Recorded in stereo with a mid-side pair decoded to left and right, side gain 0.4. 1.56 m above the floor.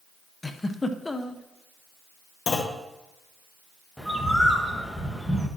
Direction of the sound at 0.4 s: 20° left.